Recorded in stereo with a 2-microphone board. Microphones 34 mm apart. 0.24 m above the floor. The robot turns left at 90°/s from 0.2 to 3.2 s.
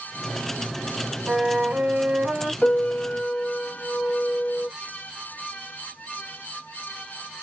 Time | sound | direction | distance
1.3 | a flute | 50° right | 1.3 m
2.6 | a piano | 150° left | 0.6 m